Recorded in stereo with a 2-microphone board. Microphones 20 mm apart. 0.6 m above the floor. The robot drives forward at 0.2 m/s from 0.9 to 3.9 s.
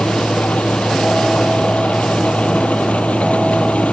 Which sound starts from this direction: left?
An engine running, at 0.0 s.